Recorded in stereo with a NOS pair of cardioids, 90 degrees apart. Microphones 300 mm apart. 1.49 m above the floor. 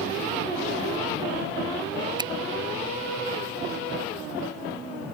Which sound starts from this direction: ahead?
A finger snap, at 2.2 s.